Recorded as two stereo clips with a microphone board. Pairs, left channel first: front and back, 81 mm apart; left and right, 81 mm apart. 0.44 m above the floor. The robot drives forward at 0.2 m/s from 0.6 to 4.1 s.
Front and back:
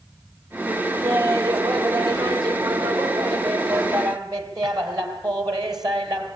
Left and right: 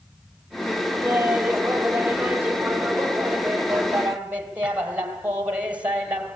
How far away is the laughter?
About 2 m.